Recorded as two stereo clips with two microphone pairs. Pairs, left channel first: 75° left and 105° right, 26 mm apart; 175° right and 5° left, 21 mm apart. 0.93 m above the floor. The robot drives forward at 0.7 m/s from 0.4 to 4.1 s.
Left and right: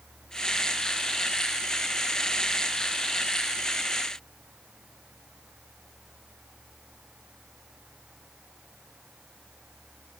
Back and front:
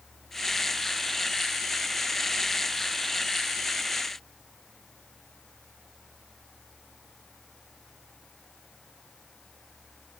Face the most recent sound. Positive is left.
No sound to turn to.